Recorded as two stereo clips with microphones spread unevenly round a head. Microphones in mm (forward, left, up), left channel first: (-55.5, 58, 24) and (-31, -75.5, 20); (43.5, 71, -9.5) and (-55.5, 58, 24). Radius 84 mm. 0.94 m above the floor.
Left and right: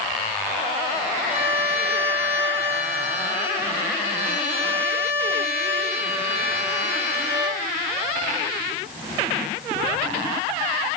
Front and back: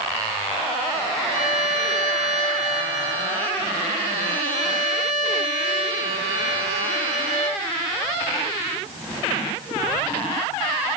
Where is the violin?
150° right, 3 m.